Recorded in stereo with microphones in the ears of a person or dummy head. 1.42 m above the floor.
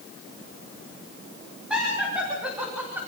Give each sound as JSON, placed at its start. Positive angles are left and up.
{"t": 1.7, "sound": "laughter", "side_deg": -5, "distance_m": 3.5}